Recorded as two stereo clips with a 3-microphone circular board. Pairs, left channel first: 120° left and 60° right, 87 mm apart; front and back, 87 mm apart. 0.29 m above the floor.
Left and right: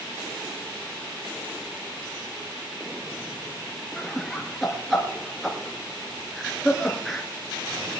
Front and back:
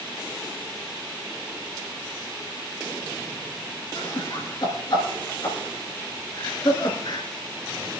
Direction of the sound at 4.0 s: 30° left.